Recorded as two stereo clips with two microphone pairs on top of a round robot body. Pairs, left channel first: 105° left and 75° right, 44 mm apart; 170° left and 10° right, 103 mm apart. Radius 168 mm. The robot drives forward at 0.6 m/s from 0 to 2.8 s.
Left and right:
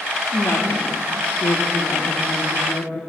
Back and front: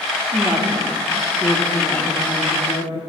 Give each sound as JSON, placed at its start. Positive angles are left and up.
{"t": 0.3, "sound": "a woman speaking", "azimuth_deg": 70, "distance_m": 1.5}